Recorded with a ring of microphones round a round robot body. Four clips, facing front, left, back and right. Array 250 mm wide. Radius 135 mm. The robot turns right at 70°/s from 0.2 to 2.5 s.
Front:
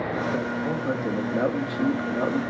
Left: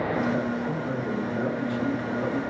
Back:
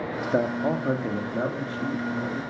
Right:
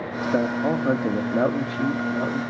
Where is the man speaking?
155° right, 1.4 m; by 2.4 s 5° right, 1.4 m.